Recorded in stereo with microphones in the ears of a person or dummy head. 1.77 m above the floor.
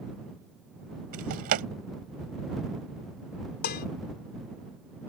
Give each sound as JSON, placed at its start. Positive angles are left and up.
{"t": 1.1, "sound": "a drawer", "side_deg": -55}
{"t": 3.6, "sound": "dishes clattering", "side_deg": 55}